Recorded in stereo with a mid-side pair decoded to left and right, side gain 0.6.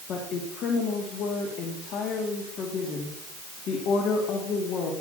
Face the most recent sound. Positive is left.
turn(degrees=55)